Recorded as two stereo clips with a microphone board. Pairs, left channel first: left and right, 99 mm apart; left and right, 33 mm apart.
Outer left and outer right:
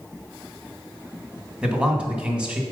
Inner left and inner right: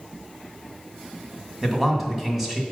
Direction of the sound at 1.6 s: 10° right (ahead or behind).